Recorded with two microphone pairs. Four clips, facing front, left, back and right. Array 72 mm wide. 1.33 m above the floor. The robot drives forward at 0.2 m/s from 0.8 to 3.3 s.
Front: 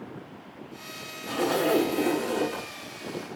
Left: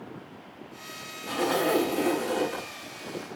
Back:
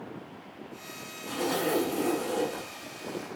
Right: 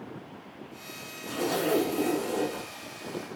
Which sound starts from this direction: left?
A zipper, at 1.3 s.